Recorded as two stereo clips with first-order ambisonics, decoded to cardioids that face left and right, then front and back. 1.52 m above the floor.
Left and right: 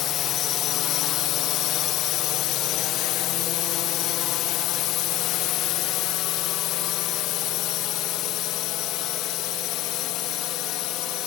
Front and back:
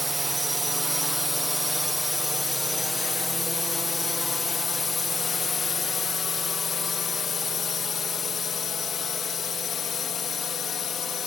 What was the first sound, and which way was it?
A drone, 105° left.